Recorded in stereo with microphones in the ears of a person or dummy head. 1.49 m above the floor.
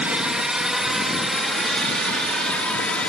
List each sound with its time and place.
0.0 s a drone: 10° right (ahead or behind); by 3.1 s centre (ahead or behind)